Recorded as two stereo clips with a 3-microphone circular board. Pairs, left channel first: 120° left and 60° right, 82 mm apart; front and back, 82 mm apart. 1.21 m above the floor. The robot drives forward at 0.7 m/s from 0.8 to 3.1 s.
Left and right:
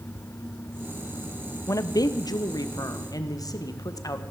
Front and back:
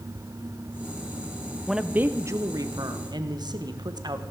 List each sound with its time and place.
1.7 s a woman speaking: 95° left, 0.6 m; by 4.2 s 160° left, 1.2 m